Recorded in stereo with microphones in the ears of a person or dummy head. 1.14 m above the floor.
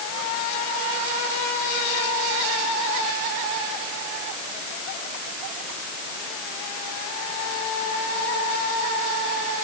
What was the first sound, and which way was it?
Only background noise.